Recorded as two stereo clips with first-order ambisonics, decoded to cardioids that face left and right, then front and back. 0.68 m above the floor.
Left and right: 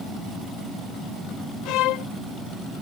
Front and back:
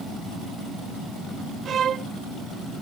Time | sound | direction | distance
1.6 | a violin | 120° left | ?